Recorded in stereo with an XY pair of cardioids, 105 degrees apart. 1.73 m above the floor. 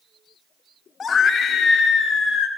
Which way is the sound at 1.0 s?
40° left.